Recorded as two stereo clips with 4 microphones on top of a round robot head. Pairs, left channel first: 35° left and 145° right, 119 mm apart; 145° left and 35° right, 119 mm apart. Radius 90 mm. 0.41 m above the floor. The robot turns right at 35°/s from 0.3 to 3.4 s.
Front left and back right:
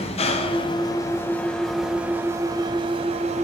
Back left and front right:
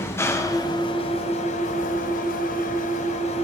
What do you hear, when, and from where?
0.0 s an engine running: 75° left, 0.9 m; by 3.5 s 175° right, 0.9 m